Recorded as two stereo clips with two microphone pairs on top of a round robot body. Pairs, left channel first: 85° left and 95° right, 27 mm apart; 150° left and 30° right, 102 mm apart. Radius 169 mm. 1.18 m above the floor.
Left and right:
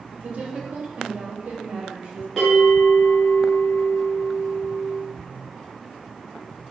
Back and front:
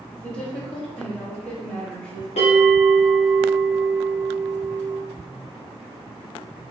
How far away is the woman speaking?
About 1.1 m.